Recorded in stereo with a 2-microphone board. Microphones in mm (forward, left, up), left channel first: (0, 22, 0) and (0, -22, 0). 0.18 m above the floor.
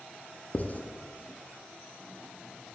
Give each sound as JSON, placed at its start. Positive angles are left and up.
{"t": 0.5, "sound": "writing", "side_deg": 40, "distance_m": 0.6}